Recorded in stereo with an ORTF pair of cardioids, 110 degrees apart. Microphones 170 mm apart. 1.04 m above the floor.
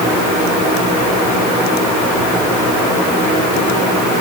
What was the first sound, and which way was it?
Only background noise.